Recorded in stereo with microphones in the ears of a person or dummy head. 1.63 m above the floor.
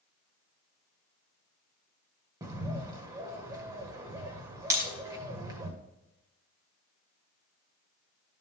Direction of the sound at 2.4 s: 20° right (ahead or behind).